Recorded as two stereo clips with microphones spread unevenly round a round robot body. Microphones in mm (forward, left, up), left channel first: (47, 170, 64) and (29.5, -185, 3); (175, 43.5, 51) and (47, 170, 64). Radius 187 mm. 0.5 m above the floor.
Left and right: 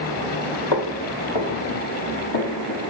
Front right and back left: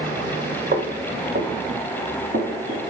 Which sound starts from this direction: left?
Footsteps, at 0.7 s.